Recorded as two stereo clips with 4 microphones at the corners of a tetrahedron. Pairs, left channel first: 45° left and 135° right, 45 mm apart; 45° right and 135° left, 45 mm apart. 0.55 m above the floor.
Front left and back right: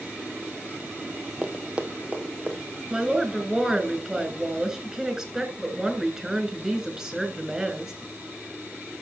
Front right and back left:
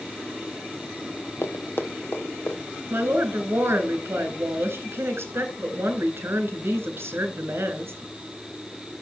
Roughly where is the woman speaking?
Behind left.